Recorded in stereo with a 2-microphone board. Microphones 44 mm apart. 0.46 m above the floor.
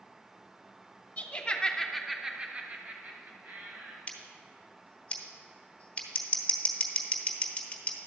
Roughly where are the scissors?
Left.